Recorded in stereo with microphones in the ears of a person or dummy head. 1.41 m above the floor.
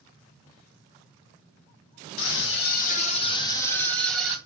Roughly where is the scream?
Left.